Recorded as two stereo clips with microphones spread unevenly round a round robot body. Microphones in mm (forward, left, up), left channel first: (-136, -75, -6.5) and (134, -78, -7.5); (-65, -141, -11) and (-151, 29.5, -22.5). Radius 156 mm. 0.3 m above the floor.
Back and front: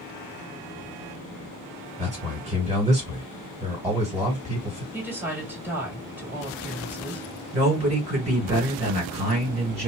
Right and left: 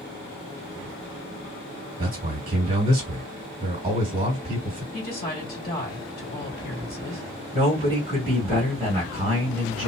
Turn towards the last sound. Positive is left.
turn(degrees=55)